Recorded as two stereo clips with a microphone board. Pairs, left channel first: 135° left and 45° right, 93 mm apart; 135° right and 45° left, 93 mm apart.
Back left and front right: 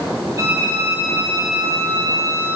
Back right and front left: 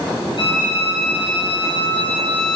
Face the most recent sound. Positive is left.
turn(degrees=-100)